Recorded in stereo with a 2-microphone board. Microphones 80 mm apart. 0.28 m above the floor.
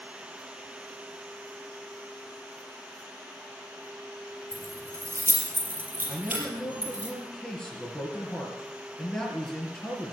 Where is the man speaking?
20° left (ahead or behind), 3.5 m.